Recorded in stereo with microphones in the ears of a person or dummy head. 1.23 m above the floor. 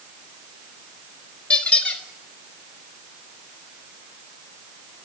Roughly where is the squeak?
Centre.